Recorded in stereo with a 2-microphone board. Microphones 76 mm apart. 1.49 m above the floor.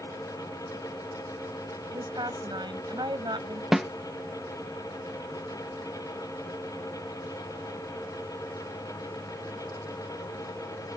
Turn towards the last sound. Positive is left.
turn(degrees=-5)  # may be behind; listen again after turning